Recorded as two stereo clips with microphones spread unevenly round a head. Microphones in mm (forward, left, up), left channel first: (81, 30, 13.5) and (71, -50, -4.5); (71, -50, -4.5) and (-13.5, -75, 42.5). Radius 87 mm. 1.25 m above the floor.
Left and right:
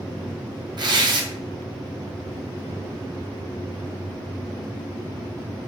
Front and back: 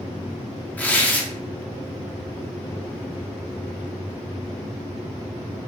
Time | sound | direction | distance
0.8 | tearing paper | 60° right | 0.7 m